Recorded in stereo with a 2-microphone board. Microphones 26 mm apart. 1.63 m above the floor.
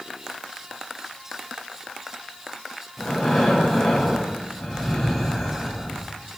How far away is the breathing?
About 7.5 m.